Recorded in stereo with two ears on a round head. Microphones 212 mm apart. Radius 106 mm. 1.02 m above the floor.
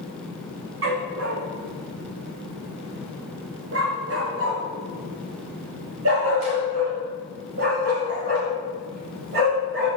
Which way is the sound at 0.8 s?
60° right (ahead or behind).